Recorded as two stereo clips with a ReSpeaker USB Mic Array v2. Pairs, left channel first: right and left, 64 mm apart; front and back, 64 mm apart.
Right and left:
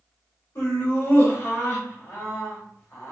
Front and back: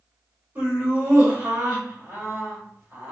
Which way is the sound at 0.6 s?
125° right.